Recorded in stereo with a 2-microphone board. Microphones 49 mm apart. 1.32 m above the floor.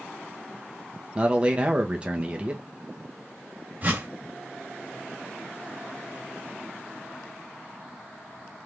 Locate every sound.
1.1 s a man speaking: 25° right (ahead or behind), 1.2 m
3.8 s a whoosh: 35° right (ahead or behind), 1.9 m